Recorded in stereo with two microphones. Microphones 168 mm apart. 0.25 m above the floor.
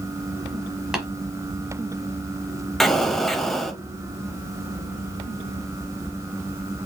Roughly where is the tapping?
Centre.